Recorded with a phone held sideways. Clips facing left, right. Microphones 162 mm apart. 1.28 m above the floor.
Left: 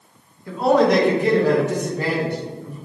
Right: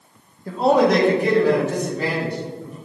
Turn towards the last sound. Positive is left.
turn(degrees=60)  # may be behind; listen again after turning